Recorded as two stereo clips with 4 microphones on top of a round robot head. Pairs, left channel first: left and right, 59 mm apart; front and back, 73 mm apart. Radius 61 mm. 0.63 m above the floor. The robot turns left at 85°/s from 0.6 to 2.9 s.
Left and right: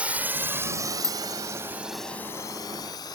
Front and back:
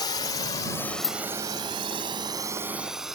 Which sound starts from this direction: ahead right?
A drone, at 0.0 s.